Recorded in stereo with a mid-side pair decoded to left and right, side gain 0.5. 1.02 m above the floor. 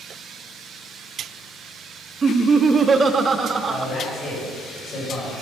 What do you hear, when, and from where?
2.2 s laughter: 35° right, 1.2 m
3.7 s a man speaking: 45° left, 6 m